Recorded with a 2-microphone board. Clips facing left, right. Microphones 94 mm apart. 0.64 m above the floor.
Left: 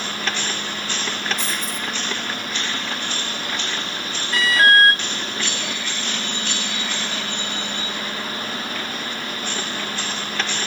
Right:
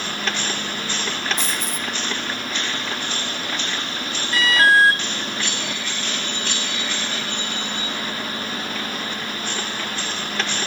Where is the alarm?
Centre (ahead or behind), 7.5 m.